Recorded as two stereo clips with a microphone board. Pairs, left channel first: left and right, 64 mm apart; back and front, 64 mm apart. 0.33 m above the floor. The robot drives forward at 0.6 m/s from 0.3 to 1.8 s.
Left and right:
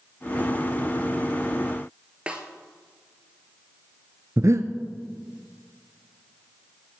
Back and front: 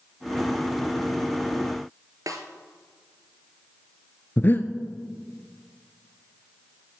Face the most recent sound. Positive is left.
turn(degrees=-125)